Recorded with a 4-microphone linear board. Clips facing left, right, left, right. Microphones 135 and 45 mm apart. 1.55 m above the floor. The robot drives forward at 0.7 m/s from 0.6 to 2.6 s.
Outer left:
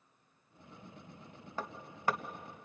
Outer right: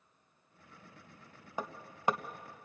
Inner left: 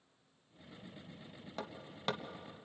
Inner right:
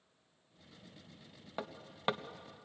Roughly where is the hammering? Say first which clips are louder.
Outer right 2 dB, inner right 2 dB; centre.